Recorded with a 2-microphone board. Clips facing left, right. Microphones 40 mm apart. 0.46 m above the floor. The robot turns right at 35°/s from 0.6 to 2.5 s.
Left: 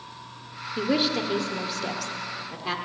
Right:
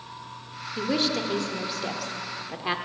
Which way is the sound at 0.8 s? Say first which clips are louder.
Left 2 dB; 15° left (ahead or behind).